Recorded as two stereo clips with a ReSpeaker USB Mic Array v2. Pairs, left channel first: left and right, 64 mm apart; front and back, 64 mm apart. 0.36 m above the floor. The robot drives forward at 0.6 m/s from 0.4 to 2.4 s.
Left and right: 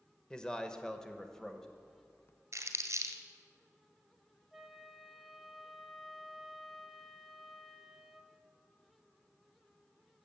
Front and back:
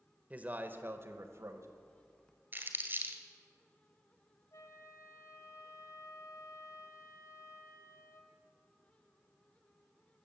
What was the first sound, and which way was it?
A man speaking, 150° left.